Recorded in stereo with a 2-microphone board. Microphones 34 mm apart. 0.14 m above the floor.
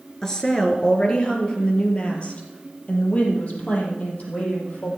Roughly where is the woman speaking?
Centre.